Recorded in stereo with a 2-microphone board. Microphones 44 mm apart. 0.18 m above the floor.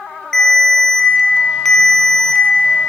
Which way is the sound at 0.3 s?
10° left (ahead or behind).